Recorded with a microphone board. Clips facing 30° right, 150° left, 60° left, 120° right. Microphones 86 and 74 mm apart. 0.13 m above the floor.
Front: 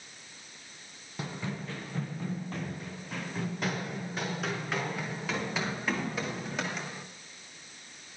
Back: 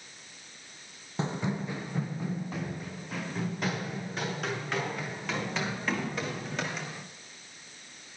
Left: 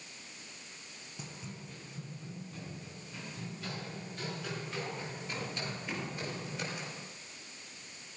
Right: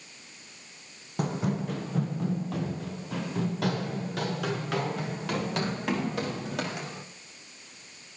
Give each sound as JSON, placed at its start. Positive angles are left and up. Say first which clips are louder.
{"t": 1.2, "sound": "running footsteps", "louder": "back 5 dB, right 18 dB", "azimuth_deg": -145, "distance_m": 0.5}